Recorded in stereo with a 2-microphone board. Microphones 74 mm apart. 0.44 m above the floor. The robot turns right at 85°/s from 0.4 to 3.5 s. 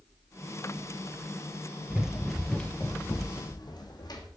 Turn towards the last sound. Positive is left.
turn(degrees=65)  # may be behind; listen again after turning